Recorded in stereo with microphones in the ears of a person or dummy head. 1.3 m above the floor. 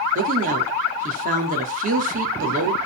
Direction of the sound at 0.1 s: 45° right (ahead or behind).